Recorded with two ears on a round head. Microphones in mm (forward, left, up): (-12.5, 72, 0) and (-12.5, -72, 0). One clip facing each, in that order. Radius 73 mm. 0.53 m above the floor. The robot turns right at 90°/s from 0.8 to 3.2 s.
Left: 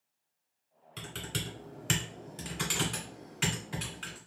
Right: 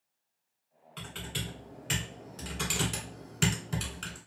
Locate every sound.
1.0 s typing on a keyboard: 30° left (ahead or behind), 1.6 m; by 4.2 s 50° right (ahead or behind), 1.6 m